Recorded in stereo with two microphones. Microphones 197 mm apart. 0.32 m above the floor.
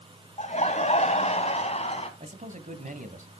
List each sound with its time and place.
0.4 s laughter: 40° left (ahead or behind), 2 m; by 2.1 s 35° left (ahead or behind), 3 m
2.2 s a man speaking: 45° right (ahead or behind), 1.9 m